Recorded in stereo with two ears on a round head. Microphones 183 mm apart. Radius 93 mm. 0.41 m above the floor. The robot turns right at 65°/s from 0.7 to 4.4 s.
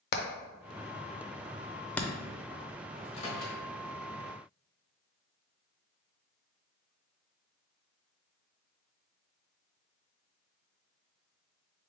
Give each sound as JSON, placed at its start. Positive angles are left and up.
{"t": 0.1, "sound": "hammering", "side_deg": 50, "distance_m": 0.5}
{"t": 3.0, "sound": "a microwave", "side_deg": 20, "distance_m": 1.3}